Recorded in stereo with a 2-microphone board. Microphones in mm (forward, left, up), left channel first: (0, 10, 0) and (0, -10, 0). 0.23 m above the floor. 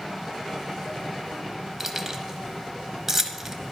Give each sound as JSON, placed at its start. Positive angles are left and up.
{"t": 1.8, "sound": "keys jangling", "side_deg": -20, "distance_m": 0.9}